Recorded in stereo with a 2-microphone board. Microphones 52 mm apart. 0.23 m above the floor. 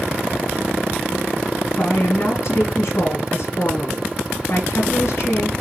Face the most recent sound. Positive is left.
turn(degrees=60)  # may be behind; listen again after turning